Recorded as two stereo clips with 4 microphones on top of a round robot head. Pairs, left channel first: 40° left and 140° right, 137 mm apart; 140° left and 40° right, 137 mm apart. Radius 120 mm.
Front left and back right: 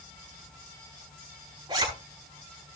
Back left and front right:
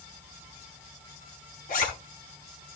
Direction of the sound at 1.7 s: 160° left.